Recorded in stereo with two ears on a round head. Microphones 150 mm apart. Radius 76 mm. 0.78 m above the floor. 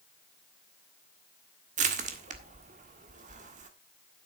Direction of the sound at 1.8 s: 45° right (ahead or behind).